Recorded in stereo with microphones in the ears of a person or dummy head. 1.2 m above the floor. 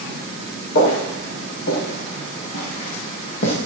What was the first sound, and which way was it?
Footsteps, 60° left (ahead or behind).